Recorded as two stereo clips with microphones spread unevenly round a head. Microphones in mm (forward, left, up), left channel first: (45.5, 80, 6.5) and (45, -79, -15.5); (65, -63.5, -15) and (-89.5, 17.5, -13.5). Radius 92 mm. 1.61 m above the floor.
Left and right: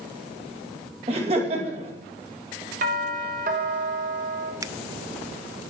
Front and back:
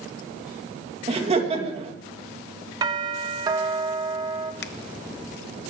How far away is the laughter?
About 2.5 m.